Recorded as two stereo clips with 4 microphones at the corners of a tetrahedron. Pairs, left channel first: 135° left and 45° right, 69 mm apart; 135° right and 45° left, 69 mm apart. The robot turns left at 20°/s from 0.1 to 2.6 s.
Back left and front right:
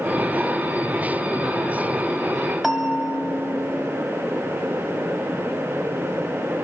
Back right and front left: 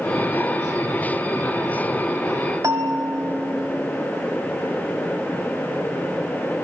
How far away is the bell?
About 1.6 m.